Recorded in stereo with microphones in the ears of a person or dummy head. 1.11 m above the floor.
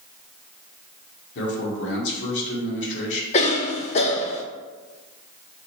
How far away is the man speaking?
About 1.4 m.